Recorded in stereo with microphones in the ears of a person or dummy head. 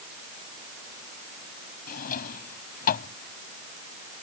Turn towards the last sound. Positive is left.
turn(degrees=50)  # may be behind; listen again after turning